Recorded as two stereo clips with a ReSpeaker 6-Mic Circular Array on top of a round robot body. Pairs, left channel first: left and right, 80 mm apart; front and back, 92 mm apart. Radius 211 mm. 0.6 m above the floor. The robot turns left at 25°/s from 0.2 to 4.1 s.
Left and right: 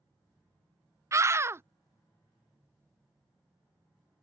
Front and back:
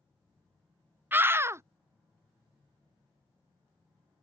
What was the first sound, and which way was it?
A scream, 120° right.